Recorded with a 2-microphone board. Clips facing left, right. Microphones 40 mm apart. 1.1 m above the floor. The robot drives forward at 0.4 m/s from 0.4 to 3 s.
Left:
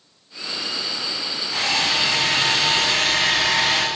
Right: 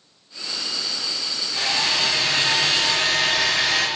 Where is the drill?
85° left, 6 m.